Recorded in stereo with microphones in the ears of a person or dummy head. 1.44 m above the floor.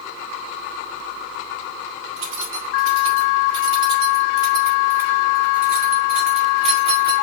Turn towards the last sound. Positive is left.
turn(degrees=-35)  # may be behind; listen again after turning